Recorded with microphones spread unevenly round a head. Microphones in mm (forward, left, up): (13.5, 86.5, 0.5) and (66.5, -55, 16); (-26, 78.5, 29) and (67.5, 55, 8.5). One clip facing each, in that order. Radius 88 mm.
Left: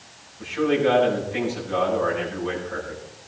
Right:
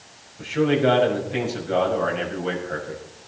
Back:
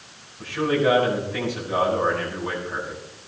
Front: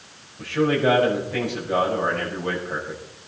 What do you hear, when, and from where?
0.4 s a man speaking: 55° right, 6.5 m